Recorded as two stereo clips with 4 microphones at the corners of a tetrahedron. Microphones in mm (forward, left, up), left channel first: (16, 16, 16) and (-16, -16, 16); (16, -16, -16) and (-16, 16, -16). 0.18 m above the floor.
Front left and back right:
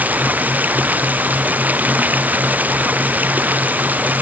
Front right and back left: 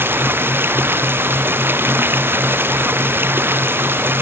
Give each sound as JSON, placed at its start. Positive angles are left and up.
{"t": 0.0, "sound": "running water", "azimuth_deg": 170}